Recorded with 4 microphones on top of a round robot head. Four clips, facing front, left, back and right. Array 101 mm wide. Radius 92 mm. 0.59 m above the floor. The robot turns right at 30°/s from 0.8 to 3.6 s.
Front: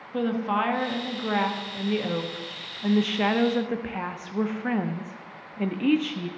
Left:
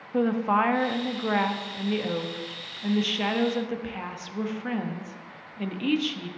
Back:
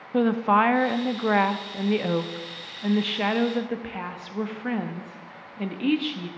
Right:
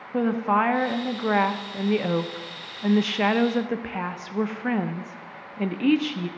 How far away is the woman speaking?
About 0.7 m.